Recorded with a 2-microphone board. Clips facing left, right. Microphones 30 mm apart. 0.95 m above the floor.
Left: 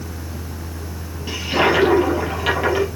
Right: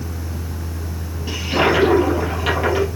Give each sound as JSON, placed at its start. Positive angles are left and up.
{"t": 1.3, "sound": "a toilet flushing", "side_deg": 10, "distance_m": 4.5}